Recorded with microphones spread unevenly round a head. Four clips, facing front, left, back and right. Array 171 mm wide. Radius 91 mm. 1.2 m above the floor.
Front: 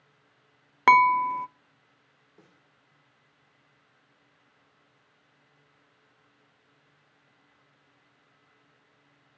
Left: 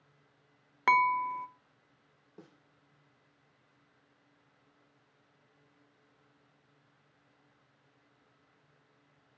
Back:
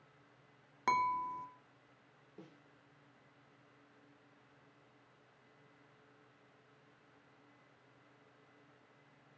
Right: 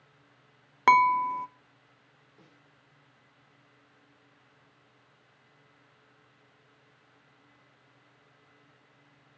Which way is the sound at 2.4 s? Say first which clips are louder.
Left 6 dB, back 3 dB; 115° left.